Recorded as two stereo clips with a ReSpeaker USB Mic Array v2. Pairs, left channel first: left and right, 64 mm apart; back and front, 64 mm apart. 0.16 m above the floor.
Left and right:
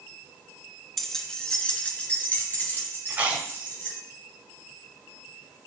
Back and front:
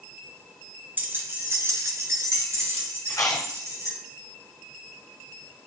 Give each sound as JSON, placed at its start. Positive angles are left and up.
{"t": 1.0, "sound": "keys jangling", "azimuth_deg": 5, "distance_m": 1.0}
{"t": 3.1, "sound": "chewing", "azimuth_deg": -155, "distance_m": 1.5}